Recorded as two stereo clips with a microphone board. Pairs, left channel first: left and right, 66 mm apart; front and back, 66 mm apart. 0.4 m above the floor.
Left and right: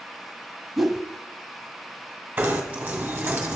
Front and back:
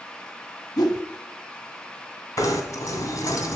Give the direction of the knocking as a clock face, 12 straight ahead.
1 o'clock.